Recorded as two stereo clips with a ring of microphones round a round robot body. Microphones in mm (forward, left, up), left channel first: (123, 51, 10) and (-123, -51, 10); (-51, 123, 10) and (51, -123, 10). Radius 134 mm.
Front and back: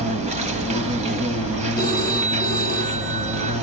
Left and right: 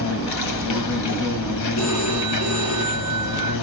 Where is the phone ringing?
80° left, 5.5 m.